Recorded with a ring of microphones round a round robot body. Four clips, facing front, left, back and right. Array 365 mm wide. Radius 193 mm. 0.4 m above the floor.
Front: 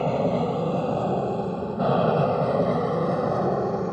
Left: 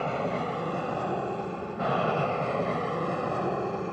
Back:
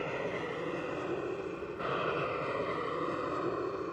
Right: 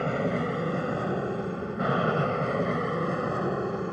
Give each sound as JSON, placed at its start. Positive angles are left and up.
{"t": 0.0, "sound": "an aircraft", "azimuth_deg": -25}